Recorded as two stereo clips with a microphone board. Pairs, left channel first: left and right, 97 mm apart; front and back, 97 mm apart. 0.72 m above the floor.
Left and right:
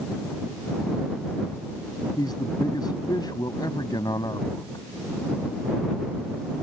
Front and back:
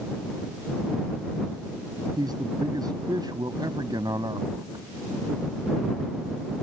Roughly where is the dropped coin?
I don't hear a dropped coin.